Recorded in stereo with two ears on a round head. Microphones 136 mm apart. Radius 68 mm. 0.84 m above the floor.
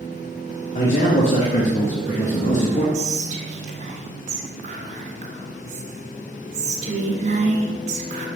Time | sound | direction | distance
0.8 | a man speaking | 55° left (ahead or behind) | 1.2 m
2.9 | whispering | 50° right (ahead or behind) | 1.4 m